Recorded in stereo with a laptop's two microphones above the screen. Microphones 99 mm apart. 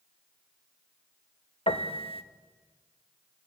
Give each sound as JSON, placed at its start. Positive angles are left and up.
{"t": 1.7, "sound": "a piano", "side_deg": 70, "distance_m": 1.4}